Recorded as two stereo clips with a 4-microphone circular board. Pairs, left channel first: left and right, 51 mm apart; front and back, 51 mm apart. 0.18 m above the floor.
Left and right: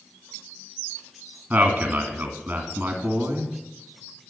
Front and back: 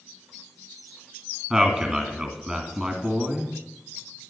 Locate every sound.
1.5 s a man speaking: 115° right, 1.4 m